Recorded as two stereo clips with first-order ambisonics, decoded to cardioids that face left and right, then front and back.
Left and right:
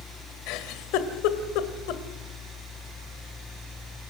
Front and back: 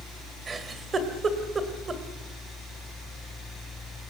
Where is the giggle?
110° left, 2 m.